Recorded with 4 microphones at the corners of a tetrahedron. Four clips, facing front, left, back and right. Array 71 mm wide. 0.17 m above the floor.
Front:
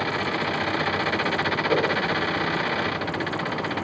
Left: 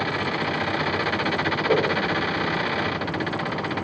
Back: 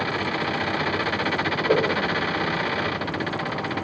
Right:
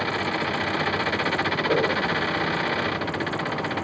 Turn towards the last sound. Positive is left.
turn(degrees=170)